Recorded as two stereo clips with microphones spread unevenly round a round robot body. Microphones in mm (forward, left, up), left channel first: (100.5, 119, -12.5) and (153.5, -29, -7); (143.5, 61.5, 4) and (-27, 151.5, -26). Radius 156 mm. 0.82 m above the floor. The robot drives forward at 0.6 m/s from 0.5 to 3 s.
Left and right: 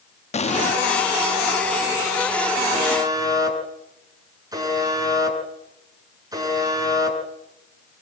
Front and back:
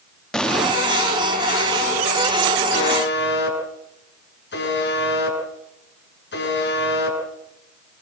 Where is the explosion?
60° left, 1.0 m; by 0.8 s 70° left, 0.9 m.